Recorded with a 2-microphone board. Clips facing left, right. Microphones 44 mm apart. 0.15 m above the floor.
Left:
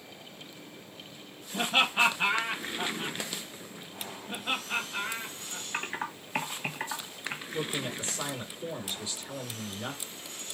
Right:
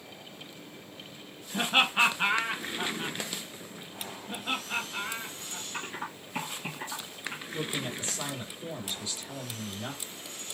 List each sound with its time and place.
1.5 s laughter: 30° right (ahead or behind), 1.6 m; by 3.2 s centre (ahead or behind), 1.7 m
4.3 s laughter: 10° left (ahead or behind), 2 m
5.7 s typing on a keyboard: 55° left (ahead or behind), 1.8 m
7.5 s a man speaking: 20° left (ahead or behind), 2 m